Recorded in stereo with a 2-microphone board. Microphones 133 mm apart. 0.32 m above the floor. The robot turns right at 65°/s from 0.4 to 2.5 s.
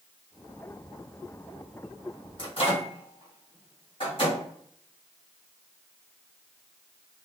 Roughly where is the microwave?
Left.